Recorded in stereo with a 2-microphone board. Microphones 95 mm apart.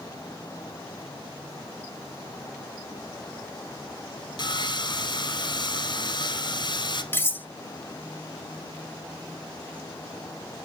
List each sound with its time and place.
4.4 s sawing: 50° left (ahead or behind), 0.8 m
7.1 s cutlery clinking: 20° left (ahead or behind), 0.7 m